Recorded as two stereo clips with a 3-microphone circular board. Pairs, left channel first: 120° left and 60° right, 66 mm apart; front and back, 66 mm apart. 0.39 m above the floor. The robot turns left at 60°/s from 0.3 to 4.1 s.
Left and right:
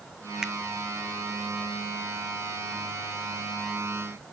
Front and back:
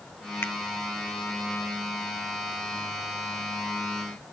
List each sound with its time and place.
0.4 s a finger snap: 10° left; by 0.5 s 5° left